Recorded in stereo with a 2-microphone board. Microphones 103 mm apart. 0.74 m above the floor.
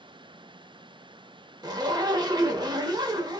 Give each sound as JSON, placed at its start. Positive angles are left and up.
{"t": 1.6, "sound": "a zipper", "side_deg": -40, "distance_m": 0.6}